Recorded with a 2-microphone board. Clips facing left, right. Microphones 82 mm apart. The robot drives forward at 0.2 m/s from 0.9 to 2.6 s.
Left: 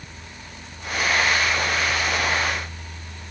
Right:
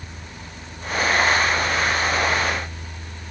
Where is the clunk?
No clunk in this recording.